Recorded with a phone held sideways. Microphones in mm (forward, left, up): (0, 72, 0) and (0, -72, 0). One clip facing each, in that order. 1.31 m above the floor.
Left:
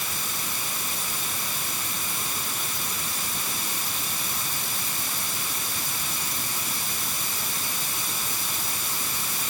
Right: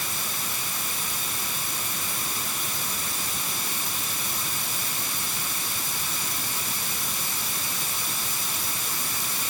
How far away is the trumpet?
No trumpet in this recording.